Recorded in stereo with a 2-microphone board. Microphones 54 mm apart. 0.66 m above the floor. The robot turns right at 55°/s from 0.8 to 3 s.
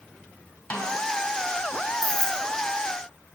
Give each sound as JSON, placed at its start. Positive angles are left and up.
{"t": 0.7, "sound": "a snare drum", "side_deg": 25, "distance_m": 2.5}
{"t": 2.0, "sound": "keys jangling", "side_deg": -65, "distance_m": 1.7}